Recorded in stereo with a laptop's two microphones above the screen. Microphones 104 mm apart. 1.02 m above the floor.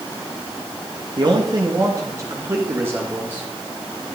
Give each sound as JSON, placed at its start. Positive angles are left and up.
{"t": 1.2, "sound": "a man speaking", "side_deg": -45, "distance_m": 2.0}